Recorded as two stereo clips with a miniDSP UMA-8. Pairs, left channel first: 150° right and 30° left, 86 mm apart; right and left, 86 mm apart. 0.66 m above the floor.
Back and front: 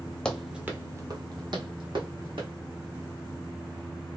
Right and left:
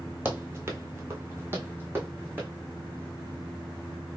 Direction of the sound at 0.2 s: 135° left.